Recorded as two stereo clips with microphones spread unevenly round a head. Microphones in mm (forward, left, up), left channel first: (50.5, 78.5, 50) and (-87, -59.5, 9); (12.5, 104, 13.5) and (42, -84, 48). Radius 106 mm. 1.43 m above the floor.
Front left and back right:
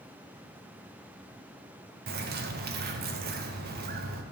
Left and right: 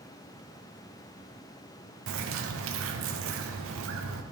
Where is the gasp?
No gasp in this recording.